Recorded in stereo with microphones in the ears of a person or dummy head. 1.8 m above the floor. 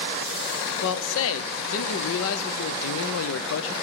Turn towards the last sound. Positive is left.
turn(degrees=80)